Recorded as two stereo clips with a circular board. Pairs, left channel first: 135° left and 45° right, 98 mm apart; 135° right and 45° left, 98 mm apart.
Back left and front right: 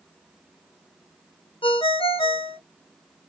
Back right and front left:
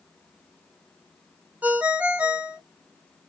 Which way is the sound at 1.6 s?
120° left.